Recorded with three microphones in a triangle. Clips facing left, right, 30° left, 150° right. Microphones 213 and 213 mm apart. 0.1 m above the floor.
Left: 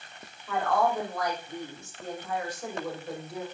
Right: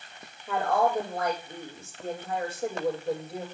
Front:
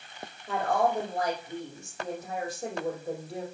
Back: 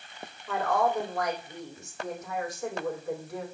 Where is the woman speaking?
30° right, 5 m.